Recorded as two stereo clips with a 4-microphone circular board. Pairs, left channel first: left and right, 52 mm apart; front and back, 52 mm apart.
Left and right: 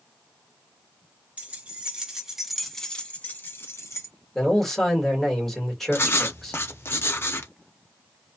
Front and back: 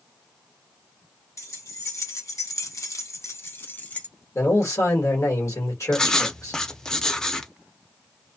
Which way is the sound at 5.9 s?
75° left.